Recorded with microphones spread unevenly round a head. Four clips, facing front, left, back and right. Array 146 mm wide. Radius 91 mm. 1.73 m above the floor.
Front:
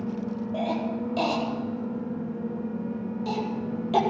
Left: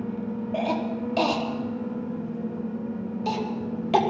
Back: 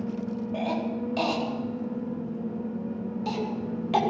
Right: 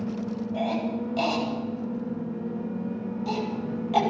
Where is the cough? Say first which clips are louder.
Left 1 dB, front 1 dB; 90° left, 4 m.